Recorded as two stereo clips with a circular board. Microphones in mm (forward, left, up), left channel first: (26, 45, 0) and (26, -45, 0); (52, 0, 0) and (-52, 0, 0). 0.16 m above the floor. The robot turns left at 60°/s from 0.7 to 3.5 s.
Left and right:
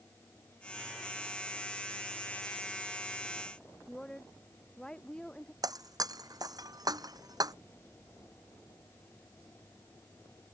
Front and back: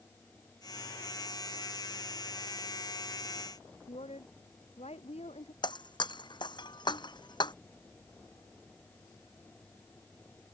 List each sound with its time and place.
3.9 s a woman speaking: 10° left
5.6 s breaking glass: 45° right